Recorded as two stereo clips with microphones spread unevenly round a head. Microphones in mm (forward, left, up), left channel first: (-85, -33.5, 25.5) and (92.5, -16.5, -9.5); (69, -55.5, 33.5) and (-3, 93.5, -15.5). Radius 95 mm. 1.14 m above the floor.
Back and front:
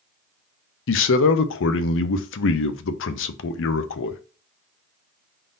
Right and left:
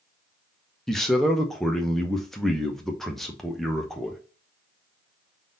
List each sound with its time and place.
0.9 s a man speaking: 160° right, 0.6 m